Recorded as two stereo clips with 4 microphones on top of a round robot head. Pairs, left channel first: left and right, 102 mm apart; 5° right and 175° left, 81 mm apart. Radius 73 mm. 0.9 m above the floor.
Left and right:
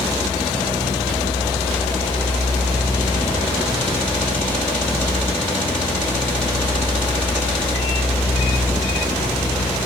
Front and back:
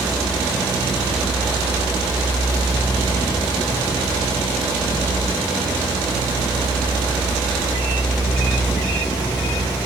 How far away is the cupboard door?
I don't hear a cupboard door.